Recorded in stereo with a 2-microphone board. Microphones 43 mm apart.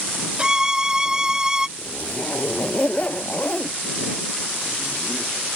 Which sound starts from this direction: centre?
A violin, at 0.4 s.